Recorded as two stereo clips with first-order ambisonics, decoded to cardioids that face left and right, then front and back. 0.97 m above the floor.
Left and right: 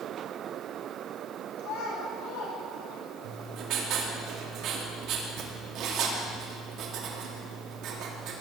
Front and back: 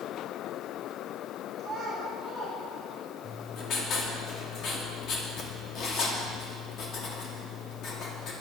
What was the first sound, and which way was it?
A child speaking, 85° left.